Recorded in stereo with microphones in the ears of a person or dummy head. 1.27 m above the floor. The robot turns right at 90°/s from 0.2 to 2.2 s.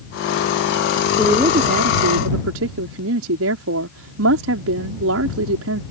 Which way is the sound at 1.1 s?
Straight behind.